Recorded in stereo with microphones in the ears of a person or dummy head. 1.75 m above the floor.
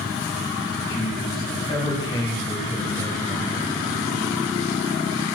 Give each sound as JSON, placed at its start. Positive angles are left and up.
{"t": 0.9, "sound": "a man speaking", "side_deg": 25, "distance_m": 5.5}